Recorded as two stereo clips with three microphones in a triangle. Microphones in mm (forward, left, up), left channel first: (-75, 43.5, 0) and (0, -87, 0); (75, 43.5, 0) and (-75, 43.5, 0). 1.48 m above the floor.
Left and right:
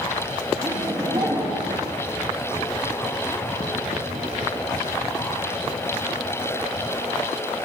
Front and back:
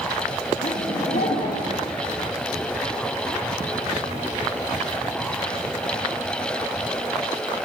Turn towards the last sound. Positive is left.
turn(degrees=5)